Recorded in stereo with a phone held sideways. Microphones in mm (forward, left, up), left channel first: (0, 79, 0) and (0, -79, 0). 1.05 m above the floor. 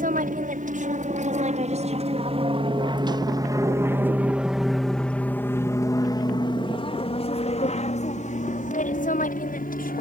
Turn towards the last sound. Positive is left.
turn(degrees=60)  # may be behind; listen again after turning